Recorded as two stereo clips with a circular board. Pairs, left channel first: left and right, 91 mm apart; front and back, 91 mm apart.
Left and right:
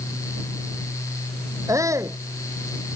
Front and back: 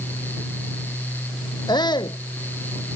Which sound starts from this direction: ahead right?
A shout, at 1.7 s.